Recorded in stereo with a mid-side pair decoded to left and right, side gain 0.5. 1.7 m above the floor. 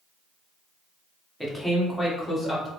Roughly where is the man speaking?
Ahead.